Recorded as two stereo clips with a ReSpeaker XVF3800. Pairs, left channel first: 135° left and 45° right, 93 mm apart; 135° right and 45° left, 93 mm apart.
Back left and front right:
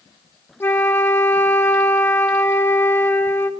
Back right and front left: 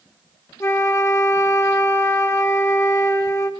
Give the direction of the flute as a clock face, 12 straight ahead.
6 o'clock.